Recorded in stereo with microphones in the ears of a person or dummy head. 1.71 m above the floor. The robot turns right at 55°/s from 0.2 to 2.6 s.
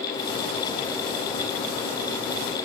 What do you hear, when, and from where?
Only background noise.